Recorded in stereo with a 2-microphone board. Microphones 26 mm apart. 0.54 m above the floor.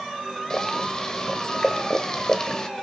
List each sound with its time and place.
0.5 s boiling: 25° left (ahead or behind), 1.7 m